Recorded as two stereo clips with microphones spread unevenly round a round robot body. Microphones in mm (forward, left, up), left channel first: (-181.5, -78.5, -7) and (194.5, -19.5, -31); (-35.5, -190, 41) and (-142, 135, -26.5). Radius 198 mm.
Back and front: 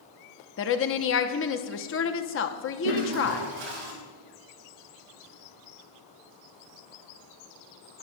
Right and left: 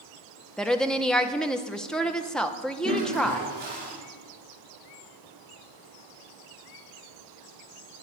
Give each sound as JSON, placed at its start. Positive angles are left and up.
{"t": 0.6, "sound": "a woman speaking", "azimuth_deg": 180, "distance_m": 0.9}
{"t": 2.8, "sound": "a toilet flushing", "azimuth_deg": 40, "distance_m": 7.5}